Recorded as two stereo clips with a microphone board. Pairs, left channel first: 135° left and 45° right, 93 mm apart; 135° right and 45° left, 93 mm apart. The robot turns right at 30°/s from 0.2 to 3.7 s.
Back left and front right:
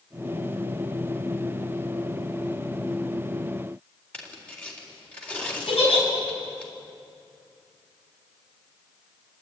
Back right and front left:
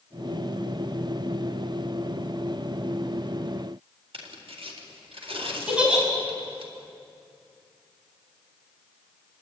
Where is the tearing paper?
60° left, 4 m.